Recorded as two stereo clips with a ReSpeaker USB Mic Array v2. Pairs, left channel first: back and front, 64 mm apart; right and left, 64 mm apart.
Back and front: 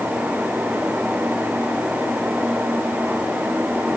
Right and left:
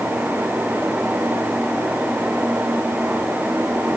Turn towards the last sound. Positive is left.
No sound to turn to.